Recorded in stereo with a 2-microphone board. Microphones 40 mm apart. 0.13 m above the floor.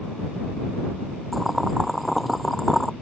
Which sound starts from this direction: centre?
Boiling, at 1.3 s.